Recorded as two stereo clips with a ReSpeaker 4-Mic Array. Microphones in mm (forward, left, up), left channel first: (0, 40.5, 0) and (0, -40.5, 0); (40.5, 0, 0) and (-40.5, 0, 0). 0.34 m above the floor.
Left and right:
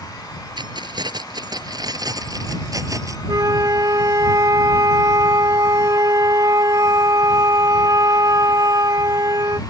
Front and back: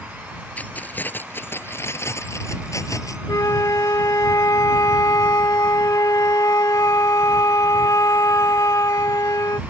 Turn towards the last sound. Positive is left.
turn(degrees=-50)